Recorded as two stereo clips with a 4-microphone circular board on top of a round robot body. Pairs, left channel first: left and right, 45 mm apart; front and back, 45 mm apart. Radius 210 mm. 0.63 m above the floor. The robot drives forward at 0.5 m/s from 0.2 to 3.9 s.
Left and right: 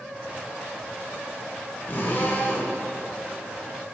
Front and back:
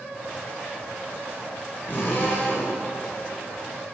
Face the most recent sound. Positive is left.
turn(degrees=45)